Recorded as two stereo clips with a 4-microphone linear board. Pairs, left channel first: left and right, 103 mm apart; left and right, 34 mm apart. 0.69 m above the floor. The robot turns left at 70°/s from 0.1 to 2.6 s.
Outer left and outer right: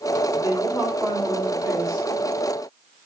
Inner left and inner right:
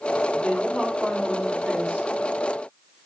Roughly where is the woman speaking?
Ahead left.